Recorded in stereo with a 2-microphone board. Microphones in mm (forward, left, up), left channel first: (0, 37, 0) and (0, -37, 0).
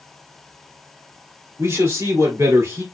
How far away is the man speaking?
About 2.5 m.